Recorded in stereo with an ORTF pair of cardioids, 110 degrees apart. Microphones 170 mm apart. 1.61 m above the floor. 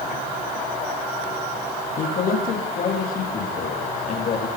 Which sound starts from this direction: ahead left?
A man speaking, at 2.0 s.